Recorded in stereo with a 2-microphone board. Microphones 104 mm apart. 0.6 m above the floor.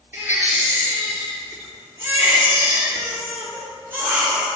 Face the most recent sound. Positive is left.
turn(degrees=-20)  # may be behind; listen again after turning